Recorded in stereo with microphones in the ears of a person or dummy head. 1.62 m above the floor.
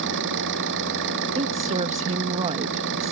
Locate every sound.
0.0 s an engine running: 65° right (ahead or behind)
1.4 s a woman speaking: 30° right (ahead or behind)